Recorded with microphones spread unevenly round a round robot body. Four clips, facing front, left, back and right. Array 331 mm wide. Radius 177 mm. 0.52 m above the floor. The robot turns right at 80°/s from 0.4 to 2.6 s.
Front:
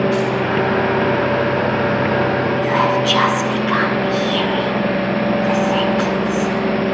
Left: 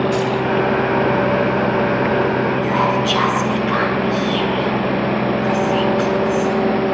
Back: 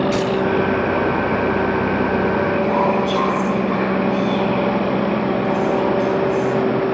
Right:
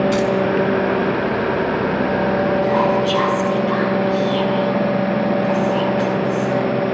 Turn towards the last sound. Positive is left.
turn(degrees=15)